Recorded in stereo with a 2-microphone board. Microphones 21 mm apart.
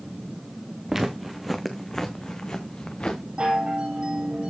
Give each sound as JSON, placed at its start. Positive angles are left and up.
{"t": 0.9, "sound": "footsteps", "side_deg": -15, "distance_m": 1.7}
{"t": 3.4, "sound": "a chime", "side_deg": -60, "distance_m": 3.5}